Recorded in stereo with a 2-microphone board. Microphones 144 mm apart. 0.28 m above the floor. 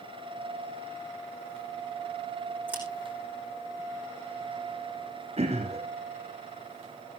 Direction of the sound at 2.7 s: 10° right (ahead or behind).